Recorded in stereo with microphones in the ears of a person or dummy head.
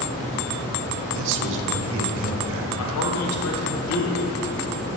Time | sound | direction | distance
1.1 | a man speaking | 70° right (ahead or behind) | 0.7 m
2.8 | a man speaking | 85° left | 1.2 m